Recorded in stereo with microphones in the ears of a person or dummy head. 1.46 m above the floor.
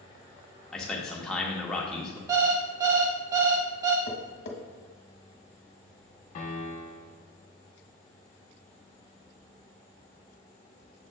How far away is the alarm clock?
About 0.5 m.